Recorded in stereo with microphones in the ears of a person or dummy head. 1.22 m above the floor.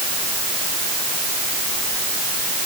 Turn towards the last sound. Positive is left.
No sound to turn to.